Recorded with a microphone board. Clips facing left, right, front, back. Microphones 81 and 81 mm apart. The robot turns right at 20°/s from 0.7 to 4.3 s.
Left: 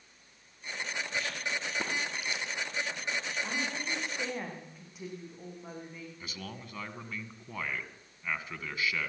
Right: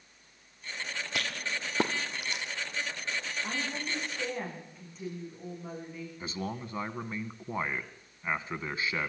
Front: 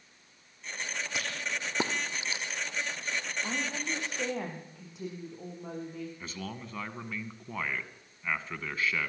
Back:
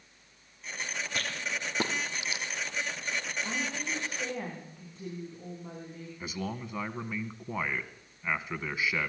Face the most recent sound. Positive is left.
turn(degrees=-110)